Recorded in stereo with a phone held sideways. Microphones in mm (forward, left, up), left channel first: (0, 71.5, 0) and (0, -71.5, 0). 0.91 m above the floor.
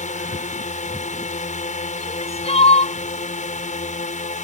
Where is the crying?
45° left (ahead or behind).